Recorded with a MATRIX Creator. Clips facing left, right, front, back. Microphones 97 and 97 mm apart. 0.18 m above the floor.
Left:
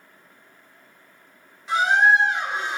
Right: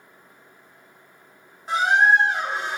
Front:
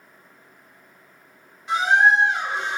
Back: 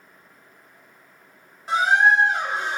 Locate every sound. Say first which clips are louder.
1.7 s a squeak: even, even; 135° right, 0.8 m